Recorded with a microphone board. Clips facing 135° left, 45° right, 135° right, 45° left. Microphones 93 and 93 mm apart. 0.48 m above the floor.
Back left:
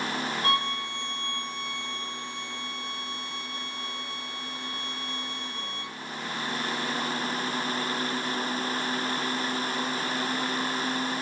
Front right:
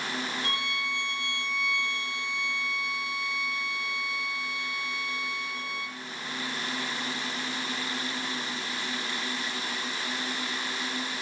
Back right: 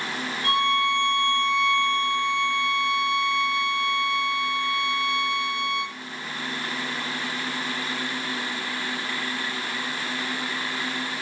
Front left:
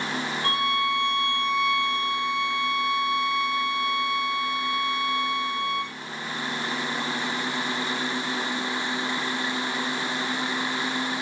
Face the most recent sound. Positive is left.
turn(degrees=100)